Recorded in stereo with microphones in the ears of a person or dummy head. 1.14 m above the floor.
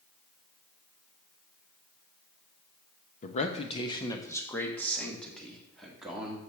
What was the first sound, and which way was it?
A man speaking, 45° left (ahead or behind).